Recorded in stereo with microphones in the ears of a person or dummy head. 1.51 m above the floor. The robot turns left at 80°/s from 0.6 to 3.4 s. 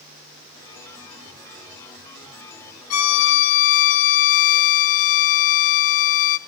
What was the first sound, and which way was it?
A violin, 90° left.